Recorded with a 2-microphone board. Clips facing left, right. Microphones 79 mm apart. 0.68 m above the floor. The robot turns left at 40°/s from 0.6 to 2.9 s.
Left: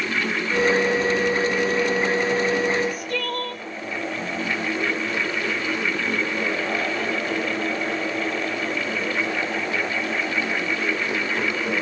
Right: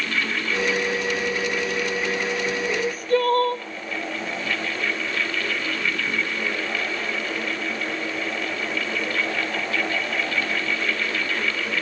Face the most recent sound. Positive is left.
turn(degrees=-35)  # may be behind; listen again after turning